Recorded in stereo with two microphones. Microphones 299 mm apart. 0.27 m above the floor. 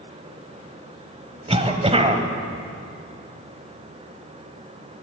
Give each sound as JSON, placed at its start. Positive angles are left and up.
{"t": 1.5, "sound": "a cough", "side_deg": -20, "distance_m": 1.1}